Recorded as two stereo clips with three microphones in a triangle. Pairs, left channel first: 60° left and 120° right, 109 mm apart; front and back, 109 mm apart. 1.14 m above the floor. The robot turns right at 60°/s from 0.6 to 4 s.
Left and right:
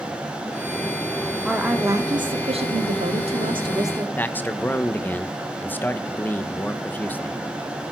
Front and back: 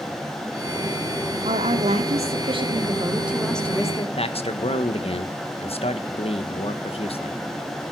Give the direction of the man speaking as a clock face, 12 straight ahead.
12 o'clock.